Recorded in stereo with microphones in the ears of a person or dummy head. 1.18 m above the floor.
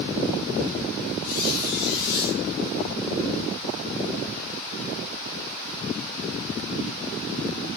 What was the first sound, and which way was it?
A squeak, 60° left (ahead or behind).